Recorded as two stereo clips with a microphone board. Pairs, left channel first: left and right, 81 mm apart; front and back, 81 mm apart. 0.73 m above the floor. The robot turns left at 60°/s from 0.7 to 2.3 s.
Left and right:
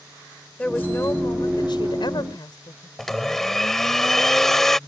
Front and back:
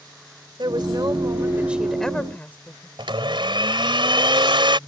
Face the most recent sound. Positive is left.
turn(degrees=175)